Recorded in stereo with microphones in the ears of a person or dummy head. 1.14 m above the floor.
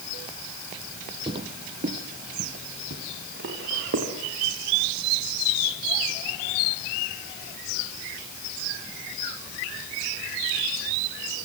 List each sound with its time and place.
1.3 s footsteps: 30° right (ahead or behind), 2 m; by 4.1 s 65° right (ahead or behind), 5.5 m